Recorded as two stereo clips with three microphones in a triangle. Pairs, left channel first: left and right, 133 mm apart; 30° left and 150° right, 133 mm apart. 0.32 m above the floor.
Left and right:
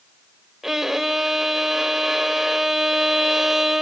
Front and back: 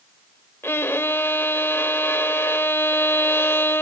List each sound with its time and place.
0.6 s a violin: 5° right, 0.9 m